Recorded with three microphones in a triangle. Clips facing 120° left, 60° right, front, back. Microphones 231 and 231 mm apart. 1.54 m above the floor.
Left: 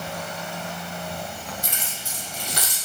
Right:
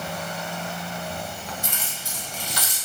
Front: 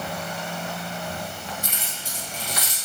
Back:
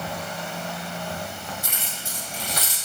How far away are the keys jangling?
About 1.6 m.